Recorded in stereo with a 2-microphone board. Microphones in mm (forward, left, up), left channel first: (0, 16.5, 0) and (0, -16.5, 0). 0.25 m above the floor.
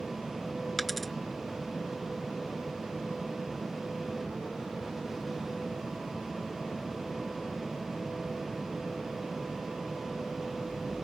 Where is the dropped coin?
5° left (ahead or behind).